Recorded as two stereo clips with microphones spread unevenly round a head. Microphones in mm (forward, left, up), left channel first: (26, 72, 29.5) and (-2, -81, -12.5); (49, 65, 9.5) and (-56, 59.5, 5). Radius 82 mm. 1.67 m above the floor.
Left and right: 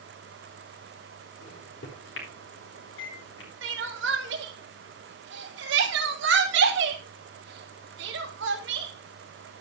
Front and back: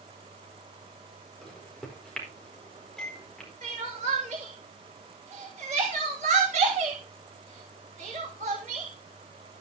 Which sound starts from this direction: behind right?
Crying, at 3.6 s.